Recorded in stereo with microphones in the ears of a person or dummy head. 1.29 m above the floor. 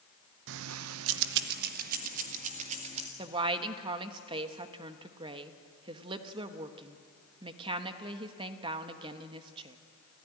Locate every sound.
0.5 s keys jangling: 65° right (ahead or behind), 0.6 m; by 3.1 s 35° right (ahead or behind), 2 m
3.2 s a woman speaking: 25° right (ahead or behind), 1.2 m